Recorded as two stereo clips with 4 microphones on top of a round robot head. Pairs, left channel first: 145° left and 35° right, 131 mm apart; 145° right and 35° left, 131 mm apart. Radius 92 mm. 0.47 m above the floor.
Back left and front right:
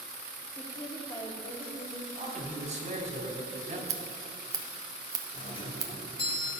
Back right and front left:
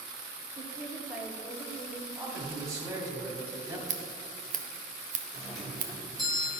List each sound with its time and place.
0.6 s a woman speaking: 80° left, 1.4 m; by 2.0 s 145° left, 1.5 m
2.1 s a man speaking: 25° right, 2 m
3.9 s scissors: 25° left, 0.9 m
5.3 s a doorbell: 130° left, 1.6 m